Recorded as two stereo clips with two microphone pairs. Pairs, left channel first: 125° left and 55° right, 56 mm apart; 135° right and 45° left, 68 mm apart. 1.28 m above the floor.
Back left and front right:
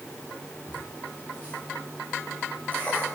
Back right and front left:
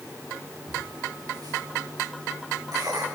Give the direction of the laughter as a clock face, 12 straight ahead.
10 o'clock.